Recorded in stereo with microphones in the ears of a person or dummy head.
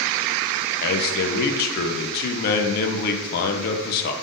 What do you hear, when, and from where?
0.8 s a man speaking: 50° left (ahead or behind), 0.5 m